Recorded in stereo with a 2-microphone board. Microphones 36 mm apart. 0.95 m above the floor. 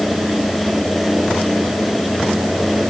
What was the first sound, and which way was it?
Only background noise.